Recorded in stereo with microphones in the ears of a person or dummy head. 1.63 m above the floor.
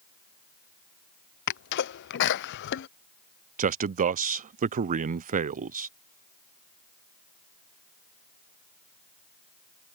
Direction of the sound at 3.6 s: 35° right (ahead or behind).